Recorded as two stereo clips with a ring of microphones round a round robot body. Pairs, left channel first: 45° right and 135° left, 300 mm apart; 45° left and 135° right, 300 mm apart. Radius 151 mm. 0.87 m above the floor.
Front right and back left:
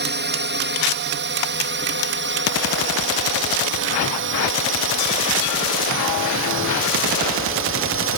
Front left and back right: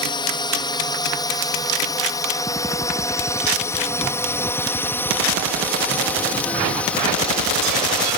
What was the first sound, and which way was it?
A drone, 110° left.